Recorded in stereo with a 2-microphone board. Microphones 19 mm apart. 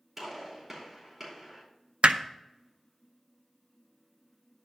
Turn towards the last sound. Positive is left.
turn(degrees=-80)